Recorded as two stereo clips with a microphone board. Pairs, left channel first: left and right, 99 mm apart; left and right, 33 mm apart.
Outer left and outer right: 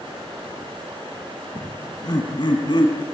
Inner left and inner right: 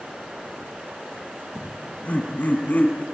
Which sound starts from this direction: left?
Laughter, at 1.6 s.